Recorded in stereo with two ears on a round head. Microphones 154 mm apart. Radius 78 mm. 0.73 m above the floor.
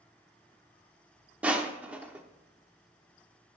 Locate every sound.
1.4 s crushing: 10° right (ahead or behind), 0.9 m